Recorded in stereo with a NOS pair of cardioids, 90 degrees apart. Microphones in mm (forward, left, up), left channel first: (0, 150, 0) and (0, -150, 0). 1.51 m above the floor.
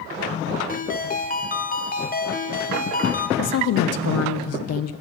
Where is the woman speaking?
60° left, 0.6 m.